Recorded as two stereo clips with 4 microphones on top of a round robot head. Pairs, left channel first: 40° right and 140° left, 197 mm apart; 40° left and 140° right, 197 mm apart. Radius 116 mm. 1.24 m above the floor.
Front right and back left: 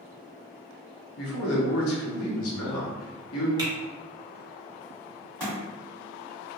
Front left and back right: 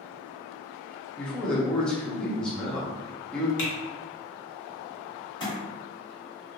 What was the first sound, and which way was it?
A man speaking, 45° right.